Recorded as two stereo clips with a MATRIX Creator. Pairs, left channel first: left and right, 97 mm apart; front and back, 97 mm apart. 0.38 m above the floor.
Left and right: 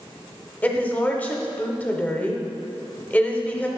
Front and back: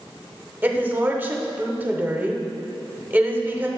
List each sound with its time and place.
0.6 s a woman speaking: 140° left, 0.8 m